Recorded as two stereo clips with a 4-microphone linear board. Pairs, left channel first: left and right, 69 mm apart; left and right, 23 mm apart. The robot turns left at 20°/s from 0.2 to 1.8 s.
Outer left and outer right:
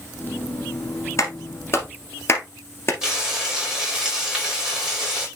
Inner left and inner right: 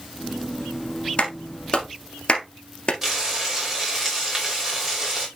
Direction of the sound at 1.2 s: 45° left (ahead or behind).